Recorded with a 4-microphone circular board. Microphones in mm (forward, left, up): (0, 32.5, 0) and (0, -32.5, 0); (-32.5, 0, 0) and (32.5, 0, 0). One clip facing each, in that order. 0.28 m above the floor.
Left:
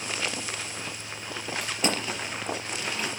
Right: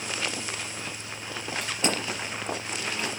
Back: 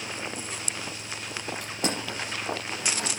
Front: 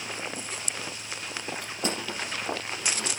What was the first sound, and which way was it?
Crushing, 175° left.